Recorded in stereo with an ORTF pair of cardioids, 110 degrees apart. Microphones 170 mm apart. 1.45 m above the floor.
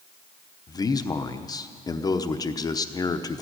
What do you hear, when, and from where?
0.7 s a man speaking: 20° left, 0.9 m